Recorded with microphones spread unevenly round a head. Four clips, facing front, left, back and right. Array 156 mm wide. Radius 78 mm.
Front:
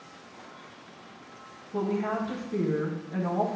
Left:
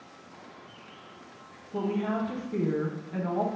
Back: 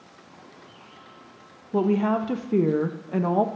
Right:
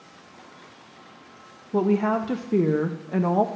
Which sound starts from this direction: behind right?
A woman speaking, at 1.7 s.